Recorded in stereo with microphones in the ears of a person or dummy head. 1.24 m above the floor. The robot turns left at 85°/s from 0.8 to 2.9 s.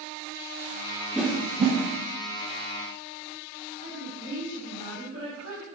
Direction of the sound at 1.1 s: Centre (ahead or behind).